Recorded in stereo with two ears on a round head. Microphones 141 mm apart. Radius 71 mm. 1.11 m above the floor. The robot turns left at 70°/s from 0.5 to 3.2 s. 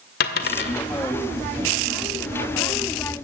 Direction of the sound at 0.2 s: 65° left (ahead or behind).